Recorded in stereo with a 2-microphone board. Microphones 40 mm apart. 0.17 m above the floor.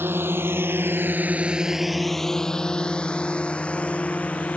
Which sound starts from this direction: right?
A drone, at 0.0 s.